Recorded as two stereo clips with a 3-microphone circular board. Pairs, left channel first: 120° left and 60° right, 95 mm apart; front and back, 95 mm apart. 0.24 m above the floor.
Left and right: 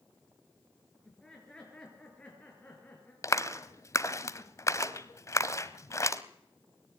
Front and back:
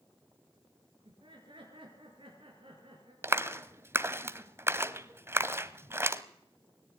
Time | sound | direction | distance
1.1 | laughter | 155° right | 5 m
3.2 | a clap | 140° left | 0.9 m